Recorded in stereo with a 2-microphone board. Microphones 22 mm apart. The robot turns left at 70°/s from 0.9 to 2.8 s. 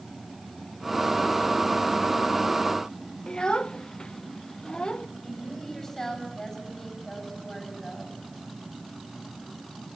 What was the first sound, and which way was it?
A child speaking, 35° left (ahead or behind).